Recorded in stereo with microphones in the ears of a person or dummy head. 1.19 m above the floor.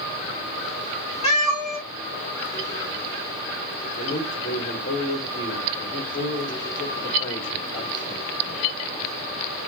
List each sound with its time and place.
1.2 s a cat meowing: 30° left (ahead or behind), 2.5 m
4.0 s a man speaking: 15° left (ahead or behind), 3 m